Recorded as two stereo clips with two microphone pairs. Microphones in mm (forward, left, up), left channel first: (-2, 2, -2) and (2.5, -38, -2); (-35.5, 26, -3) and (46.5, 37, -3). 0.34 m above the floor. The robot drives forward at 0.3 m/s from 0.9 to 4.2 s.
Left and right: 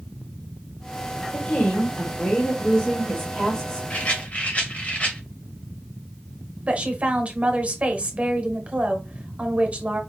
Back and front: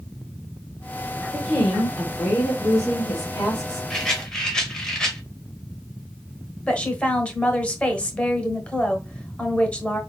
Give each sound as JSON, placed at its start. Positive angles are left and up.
{"t": 1.3, "sound": "a woman speaking", "azimuth_deg": 110, "distance_m": 1.4}
{"t": 3.9, "sound": "a rattle", "azimuth_deg": 105, "distance_m": 1.2}
{"t": 6.7, "sound": "a woman speaking", "azimuth_deg": -110, "distance_m": 1.1}